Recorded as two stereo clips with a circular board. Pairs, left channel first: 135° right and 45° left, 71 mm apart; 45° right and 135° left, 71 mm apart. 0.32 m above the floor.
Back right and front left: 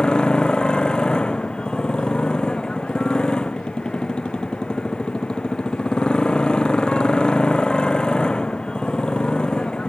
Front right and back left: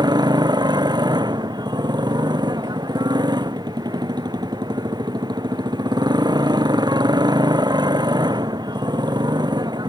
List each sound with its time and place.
0.0 s a motorcycle: 145° left